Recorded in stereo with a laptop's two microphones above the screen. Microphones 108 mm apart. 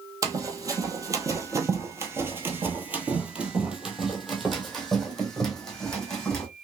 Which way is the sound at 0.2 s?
35° right (ahead or behind).